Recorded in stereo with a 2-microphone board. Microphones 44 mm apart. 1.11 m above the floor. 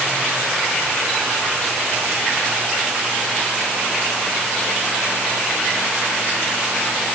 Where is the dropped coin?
I don't hear a dropped coin.